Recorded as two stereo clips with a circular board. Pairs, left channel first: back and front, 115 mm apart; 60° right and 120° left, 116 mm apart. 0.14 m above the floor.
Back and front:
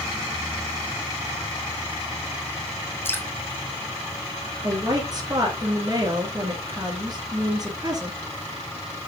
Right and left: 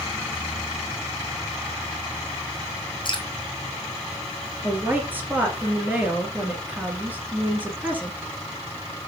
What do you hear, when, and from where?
3.0 s dripping: 110° right, 1.2 m
4.6 s a woman speaking: 50° left, 2 m